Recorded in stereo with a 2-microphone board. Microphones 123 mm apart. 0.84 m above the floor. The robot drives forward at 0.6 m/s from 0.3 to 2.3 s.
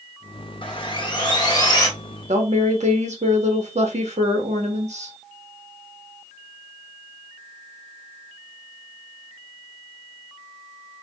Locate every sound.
0.6 s sawing: 40° left (ahead or behind), 1.0 m; by 1.9 s 30° left (ahead or behind), 1.4 m
2.3 s a woman speaking: 65° right (ahead or behind), 1.3 m